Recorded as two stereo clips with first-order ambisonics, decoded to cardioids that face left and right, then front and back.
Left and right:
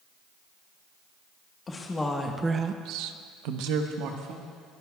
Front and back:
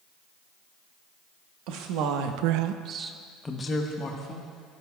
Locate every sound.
1.7 s a woman speaking: 160° left, 1.4 m; by 4.5 s 55° right, 1.9 m